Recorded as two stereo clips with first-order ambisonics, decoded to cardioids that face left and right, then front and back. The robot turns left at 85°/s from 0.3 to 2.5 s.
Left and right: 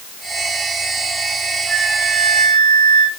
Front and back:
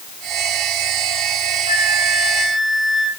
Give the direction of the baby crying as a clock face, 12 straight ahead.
I don't hear a baby crying.